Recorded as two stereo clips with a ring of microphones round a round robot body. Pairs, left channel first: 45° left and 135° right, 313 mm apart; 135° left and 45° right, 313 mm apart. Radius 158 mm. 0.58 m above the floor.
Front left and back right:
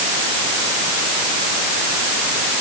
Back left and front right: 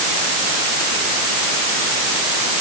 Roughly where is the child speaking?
I don't hear a child speaking.